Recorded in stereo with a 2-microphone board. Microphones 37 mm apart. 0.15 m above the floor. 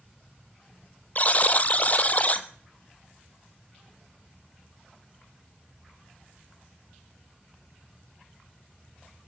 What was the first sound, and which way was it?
A buzzer, 40° left (ahead or behind).